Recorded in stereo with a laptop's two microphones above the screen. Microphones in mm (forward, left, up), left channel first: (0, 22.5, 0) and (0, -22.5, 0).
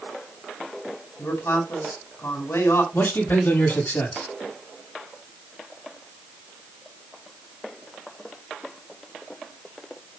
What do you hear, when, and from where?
1.2 s a man speaking: 80° left, 4 m
2.9 s a man speaking: 60° left (ahead or behind), 7 m